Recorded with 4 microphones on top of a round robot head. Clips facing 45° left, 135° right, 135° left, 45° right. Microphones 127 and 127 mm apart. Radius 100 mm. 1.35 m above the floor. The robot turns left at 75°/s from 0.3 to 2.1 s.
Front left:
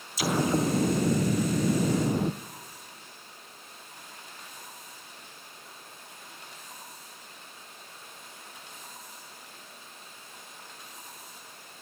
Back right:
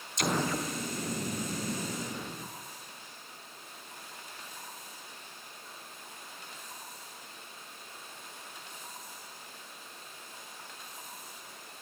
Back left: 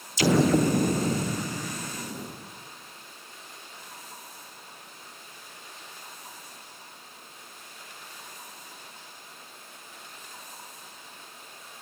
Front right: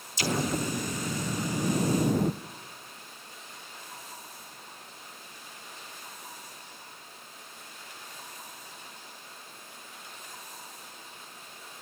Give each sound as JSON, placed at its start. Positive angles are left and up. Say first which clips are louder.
{"t": 0.2, "sound": "an explosion", "louder": "front left 5 dB, back left 9 dB", "azimuth_deg": 130, "distance_m": 0.7}